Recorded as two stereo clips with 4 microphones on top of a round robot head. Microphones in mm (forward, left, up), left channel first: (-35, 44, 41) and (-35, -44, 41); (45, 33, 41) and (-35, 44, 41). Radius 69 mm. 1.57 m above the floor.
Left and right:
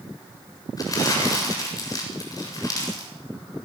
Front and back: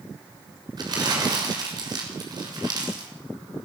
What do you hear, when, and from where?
0.8 s crumpling: 140° left, 7 m